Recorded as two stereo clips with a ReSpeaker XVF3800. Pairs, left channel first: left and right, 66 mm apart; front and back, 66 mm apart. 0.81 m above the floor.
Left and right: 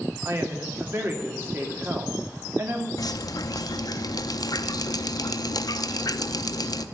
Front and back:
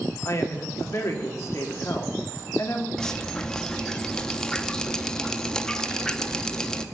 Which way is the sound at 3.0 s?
80° left.